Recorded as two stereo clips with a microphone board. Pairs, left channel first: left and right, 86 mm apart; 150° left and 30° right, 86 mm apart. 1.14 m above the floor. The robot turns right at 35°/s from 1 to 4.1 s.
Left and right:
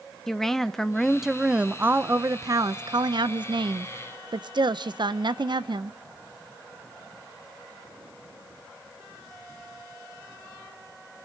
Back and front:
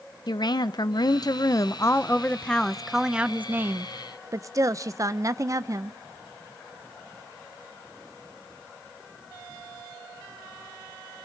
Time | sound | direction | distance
0.3 | a woman speaking | 175° left | 0.6 m